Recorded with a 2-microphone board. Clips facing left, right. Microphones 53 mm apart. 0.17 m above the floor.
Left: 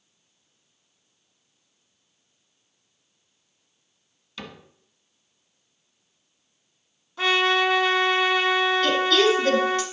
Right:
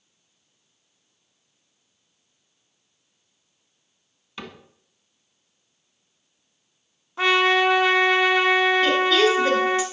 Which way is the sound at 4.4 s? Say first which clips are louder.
Right 1 dB; 25° right (ahead or behind).